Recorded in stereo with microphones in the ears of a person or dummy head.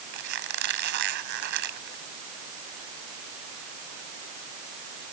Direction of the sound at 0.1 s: 60° right (ahead or behind).